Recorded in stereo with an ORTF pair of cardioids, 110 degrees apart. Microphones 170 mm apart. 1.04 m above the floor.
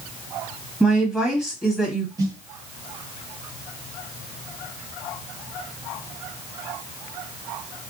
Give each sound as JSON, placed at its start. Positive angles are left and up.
{"t": 0.8, "sound": "a woman speaking", "azimuth_deg": -5, "distance_m": 1.6}
{"t": 2.2, "sound": "a snare drum", "azimuth_deg": -25, "distance_m": 1.1}